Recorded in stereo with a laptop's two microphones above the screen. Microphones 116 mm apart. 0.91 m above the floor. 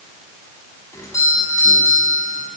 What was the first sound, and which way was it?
A doorbell, 30° left (ahead or behind).